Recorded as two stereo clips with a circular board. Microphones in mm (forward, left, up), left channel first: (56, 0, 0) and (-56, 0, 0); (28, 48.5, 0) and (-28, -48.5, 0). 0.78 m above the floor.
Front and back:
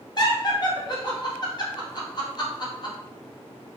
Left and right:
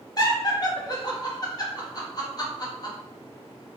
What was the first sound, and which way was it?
Laughter, 30° left.